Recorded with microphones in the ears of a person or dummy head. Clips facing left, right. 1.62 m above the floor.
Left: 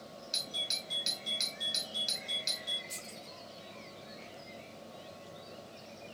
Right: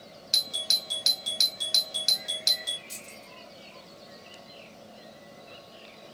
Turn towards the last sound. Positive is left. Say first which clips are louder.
# right 1 dB
turn(degrees=-25)  # may be behind; listen again after turning